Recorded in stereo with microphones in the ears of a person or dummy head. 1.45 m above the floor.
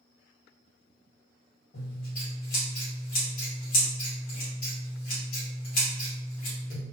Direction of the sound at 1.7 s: 50° left (ahead or behind).